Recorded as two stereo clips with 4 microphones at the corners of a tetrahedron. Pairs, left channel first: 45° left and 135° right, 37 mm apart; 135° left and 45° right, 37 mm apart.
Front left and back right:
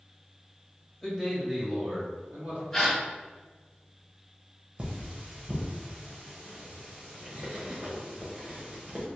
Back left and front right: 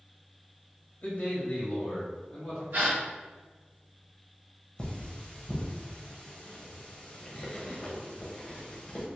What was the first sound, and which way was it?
A man speaking, 135° left.